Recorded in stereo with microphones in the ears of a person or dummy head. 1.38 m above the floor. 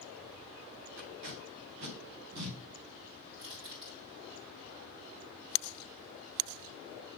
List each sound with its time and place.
1.0 s tape being pulled: 80° right, 2.5 m
3.3 s crushing: 30° right (ahead or behind), 3 m